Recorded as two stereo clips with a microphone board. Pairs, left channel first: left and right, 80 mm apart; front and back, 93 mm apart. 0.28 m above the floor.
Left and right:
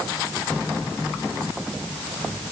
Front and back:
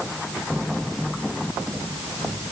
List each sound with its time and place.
Only background noise.